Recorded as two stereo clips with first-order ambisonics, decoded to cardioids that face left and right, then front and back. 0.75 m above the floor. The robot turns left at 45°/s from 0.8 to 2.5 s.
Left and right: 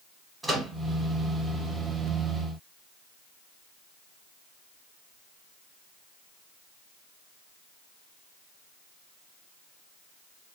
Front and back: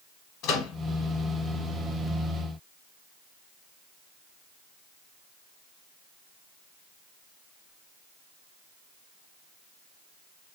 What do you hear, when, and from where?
0.4 s a microwave: 5° right, 1.0 m